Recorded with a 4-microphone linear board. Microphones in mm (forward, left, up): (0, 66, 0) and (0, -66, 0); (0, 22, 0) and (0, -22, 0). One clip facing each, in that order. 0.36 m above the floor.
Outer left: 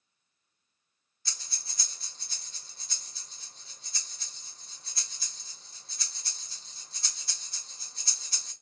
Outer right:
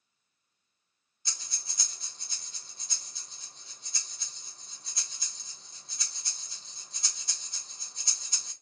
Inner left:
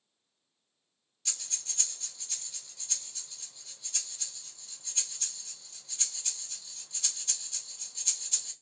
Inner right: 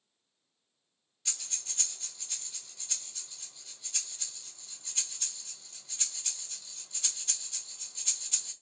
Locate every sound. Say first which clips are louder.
1.2 s breathing: outer right 1 dB, even; 20° right (ahead or behind), 1.5 m